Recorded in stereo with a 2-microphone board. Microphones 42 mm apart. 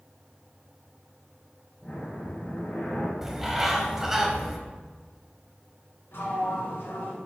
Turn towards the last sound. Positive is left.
turn(degrees=70)  # may be behind; listen again after turning